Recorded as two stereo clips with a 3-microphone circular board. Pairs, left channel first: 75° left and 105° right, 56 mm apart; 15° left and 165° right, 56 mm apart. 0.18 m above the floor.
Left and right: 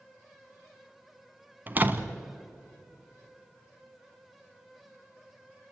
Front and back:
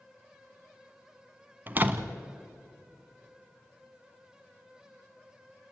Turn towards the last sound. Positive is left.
turn(degrees=-135)